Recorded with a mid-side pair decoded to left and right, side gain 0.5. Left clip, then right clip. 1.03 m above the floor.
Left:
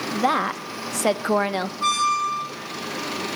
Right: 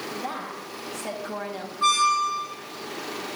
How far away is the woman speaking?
About 1.3 m.